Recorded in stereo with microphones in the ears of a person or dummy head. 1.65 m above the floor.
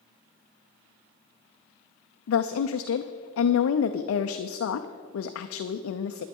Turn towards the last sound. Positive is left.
turn(degrees=85)